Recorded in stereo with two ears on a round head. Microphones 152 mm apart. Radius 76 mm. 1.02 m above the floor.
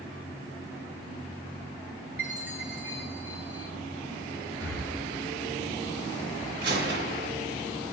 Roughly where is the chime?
Centre.